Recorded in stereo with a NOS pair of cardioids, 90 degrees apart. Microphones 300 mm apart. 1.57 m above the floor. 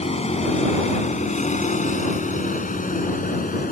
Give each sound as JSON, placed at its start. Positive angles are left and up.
{"t": 0.0, "sound": "a vehicle", "azimuth_deg": 20}